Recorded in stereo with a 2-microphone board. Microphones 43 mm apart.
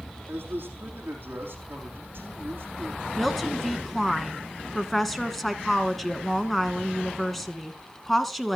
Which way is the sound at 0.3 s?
50° right (ahead or behind).